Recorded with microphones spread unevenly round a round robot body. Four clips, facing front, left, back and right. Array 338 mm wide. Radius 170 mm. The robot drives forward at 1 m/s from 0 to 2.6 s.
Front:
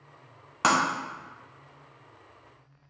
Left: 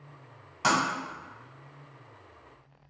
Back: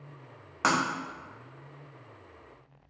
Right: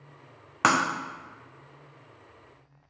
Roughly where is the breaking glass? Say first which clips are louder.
Right 3 dB, front 3 dB; ahead right.